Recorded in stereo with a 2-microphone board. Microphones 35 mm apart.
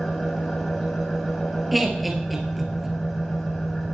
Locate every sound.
0.0 s an engine running: 5° left (ahead or behind), 7.5 m
1.7 s laughter: 5° right (ahead or behind), 2.5 m